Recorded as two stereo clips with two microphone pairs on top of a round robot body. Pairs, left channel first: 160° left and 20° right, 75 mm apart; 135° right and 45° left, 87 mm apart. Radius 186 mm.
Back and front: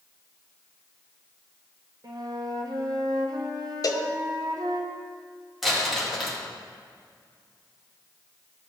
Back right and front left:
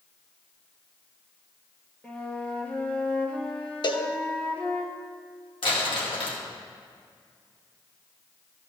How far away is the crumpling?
About 2 m.